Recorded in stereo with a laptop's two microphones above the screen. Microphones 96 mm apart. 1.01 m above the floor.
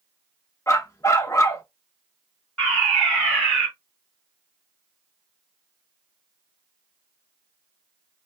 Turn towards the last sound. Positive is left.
turn(degrees=10)  # may be behind; listen again after turning